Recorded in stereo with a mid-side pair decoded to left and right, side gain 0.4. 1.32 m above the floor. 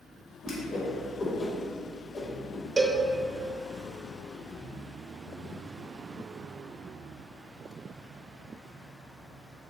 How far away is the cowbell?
About 0.6 m.